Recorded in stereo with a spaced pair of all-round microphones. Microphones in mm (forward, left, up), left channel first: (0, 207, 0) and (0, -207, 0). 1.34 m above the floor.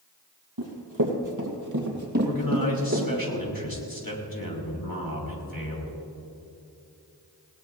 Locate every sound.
0.6 s running footsteps: 55° right (ahead or behind), 2.5 m; by 3.1 s 30° right (ahead or behind), 3 m
2.2 s a man speaking: 55° left (ahead or behind), 3.5 m